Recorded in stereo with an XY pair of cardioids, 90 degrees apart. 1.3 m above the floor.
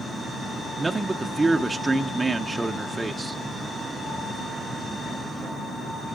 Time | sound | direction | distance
0.8 | a man speaking | 25° right | 0.6 m